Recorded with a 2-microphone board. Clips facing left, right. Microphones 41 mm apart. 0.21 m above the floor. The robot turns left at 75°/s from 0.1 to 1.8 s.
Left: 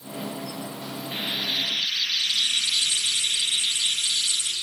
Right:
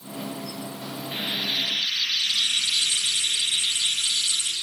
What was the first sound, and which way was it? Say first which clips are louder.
Frying: even; 5° right.